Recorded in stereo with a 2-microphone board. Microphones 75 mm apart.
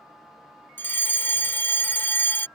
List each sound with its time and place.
0.8 s a fire alarm: 30° left (ahead or behind)